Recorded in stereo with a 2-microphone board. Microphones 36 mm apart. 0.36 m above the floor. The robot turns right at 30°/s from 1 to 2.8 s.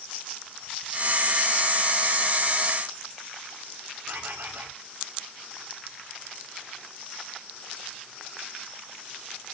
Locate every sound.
4.1 s a bird: 70° right (ahead or behind), 5.5 m